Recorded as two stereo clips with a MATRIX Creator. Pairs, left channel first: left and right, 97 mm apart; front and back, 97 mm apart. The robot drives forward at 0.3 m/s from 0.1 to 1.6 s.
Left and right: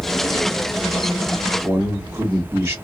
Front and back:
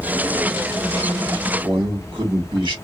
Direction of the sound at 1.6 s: 160° right.